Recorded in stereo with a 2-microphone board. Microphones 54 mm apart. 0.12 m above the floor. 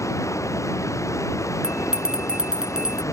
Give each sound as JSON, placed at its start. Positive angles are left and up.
{"t": 0.0, "sound": "running water", "side_deg": 70}
{"t": 1.6, "sound": "a bell", "side_deg": -10}